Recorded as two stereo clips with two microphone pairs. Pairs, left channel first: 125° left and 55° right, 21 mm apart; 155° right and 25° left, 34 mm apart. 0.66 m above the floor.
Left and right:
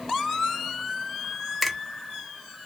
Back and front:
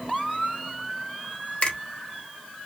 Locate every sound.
1.6 s a finger snap: 155° right, 0.9 m